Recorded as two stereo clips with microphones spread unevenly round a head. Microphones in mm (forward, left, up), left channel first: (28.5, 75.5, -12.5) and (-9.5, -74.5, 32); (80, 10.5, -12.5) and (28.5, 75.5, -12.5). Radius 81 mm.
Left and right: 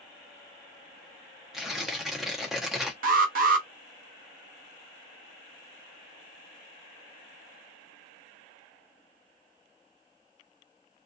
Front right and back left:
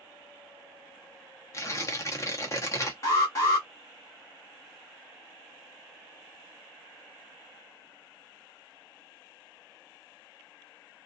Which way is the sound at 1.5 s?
45° right.